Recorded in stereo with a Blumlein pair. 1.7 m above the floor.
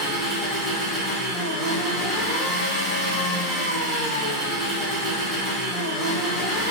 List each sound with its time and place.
0.0 s an engine running: 10° right, 1.3 m